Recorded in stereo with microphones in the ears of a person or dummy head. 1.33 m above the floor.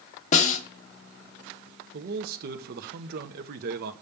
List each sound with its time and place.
0.3 s a snare drum: 45° left (ahead or behind), 1.3 m
1.9 s a man speaking: 60° right (ahead or behind), 1.0 m